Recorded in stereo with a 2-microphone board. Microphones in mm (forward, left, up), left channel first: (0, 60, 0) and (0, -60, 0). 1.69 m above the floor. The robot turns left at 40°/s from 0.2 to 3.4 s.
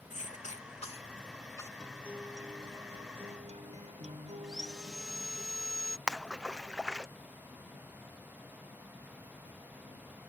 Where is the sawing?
5° right (ahead or behind).